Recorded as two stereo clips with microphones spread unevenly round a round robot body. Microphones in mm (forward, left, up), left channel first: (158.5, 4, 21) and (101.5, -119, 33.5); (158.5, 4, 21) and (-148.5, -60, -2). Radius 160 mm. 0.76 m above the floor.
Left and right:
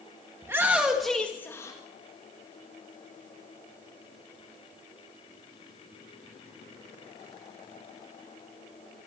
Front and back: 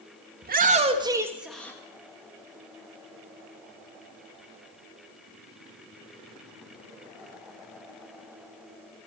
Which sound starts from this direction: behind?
A shout, at 0.4 s.